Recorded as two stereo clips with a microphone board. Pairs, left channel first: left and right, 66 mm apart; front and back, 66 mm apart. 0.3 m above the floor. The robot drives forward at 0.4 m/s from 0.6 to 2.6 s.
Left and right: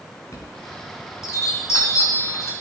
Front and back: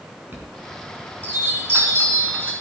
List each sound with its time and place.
0.3 s a chime: 125° left, 3.5 m; by 2.5 s 135° left, 4 m